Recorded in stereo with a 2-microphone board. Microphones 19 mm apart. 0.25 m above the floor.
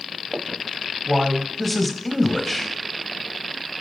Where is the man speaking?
Centre (ahead or behind), 1.0 m.